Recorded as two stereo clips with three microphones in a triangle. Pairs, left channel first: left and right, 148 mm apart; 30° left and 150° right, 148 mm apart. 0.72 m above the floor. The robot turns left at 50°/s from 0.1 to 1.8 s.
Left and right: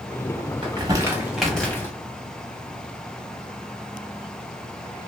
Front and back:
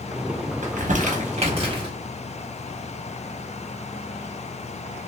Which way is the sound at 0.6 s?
140° right.